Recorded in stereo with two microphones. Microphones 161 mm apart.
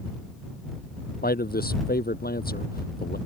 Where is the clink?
No clink in this recording.